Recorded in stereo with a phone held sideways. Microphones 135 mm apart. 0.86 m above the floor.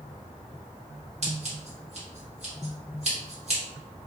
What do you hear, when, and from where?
1.2 s scissors: 50° right (ahead or behind), 1.1 m